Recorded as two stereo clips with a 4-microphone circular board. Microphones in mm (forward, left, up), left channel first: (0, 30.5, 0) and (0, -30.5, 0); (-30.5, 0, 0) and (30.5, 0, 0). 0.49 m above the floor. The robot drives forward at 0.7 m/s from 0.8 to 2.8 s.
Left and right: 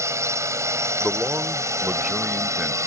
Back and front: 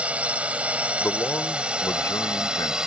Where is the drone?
65° right; by 2.9 s 75° right.